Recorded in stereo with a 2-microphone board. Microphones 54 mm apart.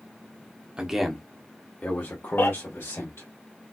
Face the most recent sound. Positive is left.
turn(degrees=45)  # may be behind; listen again after turning